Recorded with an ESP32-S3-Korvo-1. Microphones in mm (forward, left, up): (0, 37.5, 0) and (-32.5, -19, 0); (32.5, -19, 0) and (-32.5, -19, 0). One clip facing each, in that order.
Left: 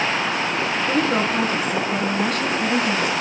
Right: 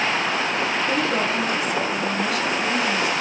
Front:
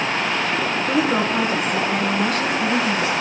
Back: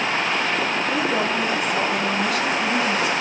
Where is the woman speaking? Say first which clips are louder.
Left 2 dB, front 5 dB; 10° left, 2.5 m; by 3.1 s 50° left, 2 m.